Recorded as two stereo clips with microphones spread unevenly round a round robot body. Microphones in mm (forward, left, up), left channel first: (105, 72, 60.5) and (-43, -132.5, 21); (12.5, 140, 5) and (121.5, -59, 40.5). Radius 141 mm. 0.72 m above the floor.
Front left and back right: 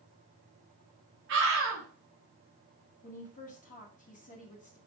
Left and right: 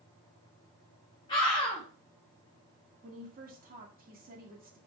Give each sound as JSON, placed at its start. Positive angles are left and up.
{"t": 1.3, "sound": "a scream", "azimuth_deg": -175, "distance_m": 2.5}
{"t": 3.0, "sound": "a woman speaking", "azimuth_deg": -10, "distance_m": 2.0}